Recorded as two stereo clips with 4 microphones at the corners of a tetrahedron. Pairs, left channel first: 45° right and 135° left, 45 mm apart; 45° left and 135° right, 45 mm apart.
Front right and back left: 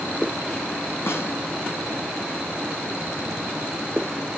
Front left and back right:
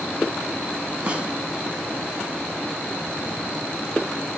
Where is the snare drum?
70° right, 6 m.